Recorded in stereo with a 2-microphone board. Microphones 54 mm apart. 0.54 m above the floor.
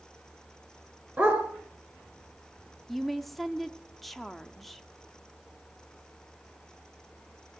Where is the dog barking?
30° right (ahead or behind), 3.5 m.